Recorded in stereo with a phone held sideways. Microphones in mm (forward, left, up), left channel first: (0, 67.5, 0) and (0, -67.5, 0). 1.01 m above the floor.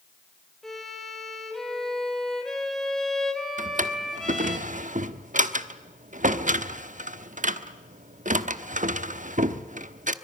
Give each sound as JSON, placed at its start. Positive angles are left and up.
{"t": 0.6, "sound": "a violin", "side_deg": 0, "distance_m": 4.0}
{"t": 3.6, "sound": "a drawer", "side_deg": -75, "distance_m": 1.0}